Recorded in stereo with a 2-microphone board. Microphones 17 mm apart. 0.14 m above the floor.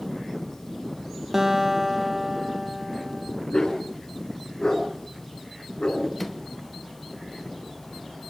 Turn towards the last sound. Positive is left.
turn(degrees=10)  # may be behind; listen again after turning